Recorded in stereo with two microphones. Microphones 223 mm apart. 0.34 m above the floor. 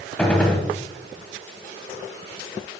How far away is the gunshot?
About 0.6 m.